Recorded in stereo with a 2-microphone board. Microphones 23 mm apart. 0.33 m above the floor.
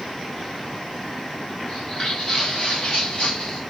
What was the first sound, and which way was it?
Footsteps, 40° left (ahead or behind).